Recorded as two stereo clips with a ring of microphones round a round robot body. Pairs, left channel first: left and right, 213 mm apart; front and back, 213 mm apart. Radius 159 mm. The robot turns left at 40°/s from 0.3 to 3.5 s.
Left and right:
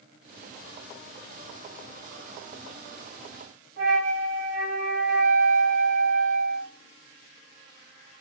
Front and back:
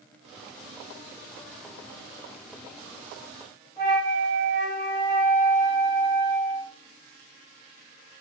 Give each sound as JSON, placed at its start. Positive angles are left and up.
{"t": 3.8, "sound": "a flute", "azimuth_deg": -105, "distance_m": 1.7}